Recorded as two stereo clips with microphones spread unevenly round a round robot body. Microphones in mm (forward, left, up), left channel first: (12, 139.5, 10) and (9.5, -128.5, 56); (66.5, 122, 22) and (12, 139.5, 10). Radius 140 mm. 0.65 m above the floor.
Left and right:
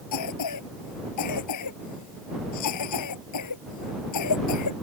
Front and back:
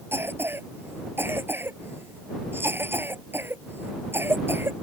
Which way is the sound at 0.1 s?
115° left.